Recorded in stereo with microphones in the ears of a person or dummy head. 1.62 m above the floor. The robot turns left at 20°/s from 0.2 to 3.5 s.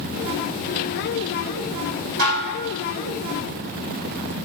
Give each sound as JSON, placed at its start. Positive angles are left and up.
{"t": 2.2, "sound": "dishes clattering", "side_deg": -45, "distance_m": 1.2}